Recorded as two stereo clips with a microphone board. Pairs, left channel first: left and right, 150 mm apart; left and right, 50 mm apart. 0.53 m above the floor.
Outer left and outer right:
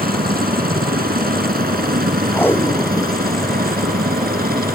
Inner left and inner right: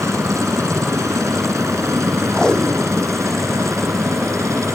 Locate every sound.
0.0 s a helicopter: 80° right; by 4.8 s 75° right (ahead or behind)
2.3 s tape being pulled: 15° left (ahead or behind)